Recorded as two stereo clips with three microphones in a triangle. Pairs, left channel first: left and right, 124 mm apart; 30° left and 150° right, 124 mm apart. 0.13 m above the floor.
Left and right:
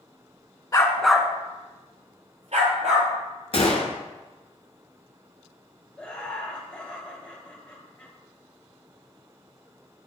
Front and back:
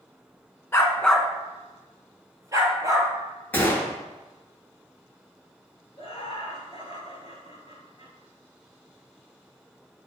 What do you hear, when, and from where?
0.7 s a dog barking: 75° left, 0.5 m; by 3.1 s 90° right, 1.5 m
3.5 s a gunshot: 100° left, 0.7 m
6.0 s laughter: 10° left, 1.7 m